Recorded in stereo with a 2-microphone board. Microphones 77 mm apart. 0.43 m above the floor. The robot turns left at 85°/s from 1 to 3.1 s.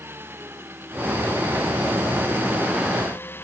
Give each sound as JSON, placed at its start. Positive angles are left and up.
{"t": 0.0, "sound": "an engine running", "azimuth_deg": -30}